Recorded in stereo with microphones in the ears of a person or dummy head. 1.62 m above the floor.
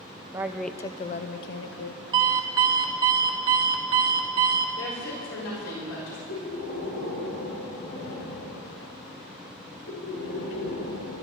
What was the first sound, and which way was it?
A woman speaking, 20° right (ahead or behind).